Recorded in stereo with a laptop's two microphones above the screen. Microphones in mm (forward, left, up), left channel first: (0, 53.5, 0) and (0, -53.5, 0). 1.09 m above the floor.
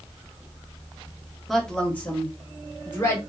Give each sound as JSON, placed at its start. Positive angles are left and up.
{"t": 1.5, "sound": "a woman speaking", "side_deg": 0, "distance_m": 0.8}